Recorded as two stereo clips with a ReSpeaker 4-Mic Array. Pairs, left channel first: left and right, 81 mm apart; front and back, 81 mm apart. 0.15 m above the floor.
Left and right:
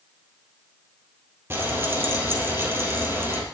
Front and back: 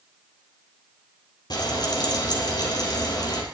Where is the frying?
30° right, 4.5 m.